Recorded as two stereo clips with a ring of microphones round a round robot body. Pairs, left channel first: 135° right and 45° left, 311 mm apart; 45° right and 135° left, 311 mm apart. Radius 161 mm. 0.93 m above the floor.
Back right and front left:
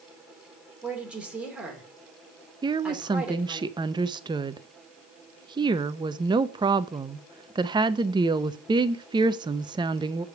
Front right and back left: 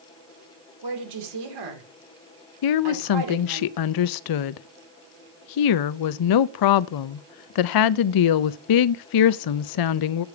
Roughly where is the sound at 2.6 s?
Ahead right.